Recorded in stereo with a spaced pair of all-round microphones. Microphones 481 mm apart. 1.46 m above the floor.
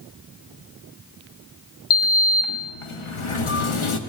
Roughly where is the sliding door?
Left.